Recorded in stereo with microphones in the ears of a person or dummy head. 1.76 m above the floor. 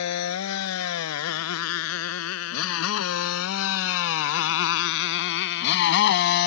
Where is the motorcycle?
85° left; by 6.5 s 55° left (ahead or behind).